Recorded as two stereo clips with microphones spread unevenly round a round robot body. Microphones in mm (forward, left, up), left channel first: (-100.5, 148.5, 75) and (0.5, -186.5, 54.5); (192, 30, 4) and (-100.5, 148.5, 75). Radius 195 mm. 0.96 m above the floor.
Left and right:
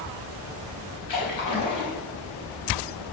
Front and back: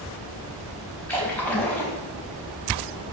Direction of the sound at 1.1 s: 65° left.